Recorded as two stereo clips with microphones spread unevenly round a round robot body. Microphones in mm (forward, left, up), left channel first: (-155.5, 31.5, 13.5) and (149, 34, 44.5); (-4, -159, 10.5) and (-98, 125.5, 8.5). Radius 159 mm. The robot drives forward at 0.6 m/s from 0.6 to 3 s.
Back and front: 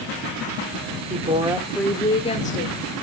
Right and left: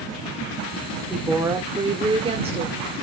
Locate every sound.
1.1 s a woman speaking: 30° left, 1.0 m; by 2.8 s 165° left, 1.2 m